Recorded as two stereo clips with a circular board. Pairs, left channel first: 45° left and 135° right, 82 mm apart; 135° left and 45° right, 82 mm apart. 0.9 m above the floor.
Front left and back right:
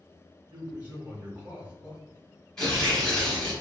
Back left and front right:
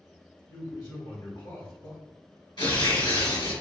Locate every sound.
0.5 s a man speaking: 155° left, 1.6 m
2.6 s tearing paper: 125° left, 1.5 m